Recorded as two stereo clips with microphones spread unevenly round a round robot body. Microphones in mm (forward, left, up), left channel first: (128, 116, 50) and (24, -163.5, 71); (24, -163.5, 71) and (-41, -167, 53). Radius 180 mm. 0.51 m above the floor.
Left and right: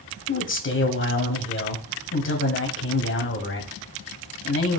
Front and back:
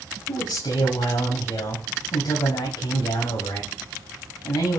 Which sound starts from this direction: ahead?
A man speaking, at 0.3 s.